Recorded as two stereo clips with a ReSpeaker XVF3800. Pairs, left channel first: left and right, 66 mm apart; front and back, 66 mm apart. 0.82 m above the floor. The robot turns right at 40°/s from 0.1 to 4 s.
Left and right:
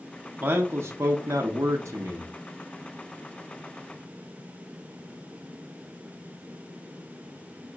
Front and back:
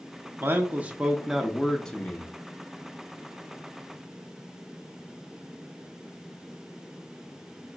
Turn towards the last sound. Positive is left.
turn(degrees=10)